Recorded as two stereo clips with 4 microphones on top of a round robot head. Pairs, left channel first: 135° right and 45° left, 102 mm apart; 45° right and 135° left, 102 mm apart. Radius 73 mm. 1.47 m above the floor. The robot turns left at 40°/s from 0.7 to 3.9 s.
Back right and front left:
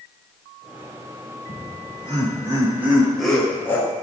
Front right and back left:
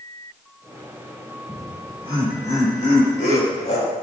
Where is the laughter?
20° left, 7.5 m; by 3.9 s 75° right, 7.5 m.